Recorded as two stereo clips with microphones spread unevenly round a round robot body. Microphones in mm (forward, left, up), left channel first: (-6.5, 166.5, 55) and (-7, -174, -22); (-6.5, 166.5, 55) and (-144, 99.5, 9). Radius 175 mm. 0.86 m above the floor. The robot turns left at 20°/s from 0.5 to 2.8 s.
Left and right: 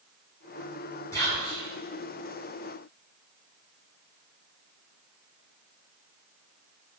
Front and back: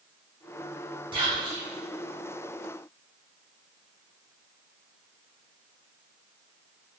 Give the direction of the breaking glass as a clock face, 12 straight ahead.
No breaking glass in this recording.